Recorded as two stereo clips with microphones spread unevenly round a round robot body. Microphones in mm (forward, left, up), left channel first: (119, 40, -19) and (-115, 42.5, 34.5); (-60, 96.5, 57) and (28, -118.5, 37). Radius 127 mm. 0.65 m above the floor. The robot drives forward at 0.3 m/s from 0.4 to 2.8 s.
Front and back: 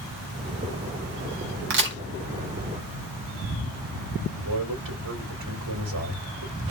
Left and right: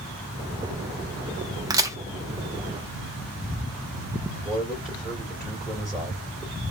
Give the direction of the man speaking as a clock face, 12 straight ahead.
5 o'clock.